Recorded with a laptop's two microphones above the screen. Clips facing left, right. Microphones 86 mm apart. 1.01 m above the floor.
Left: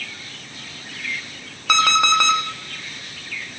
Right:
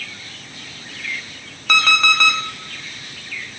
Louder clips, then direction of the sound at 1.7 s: Left 1 dB; 20° left (ahead or behind).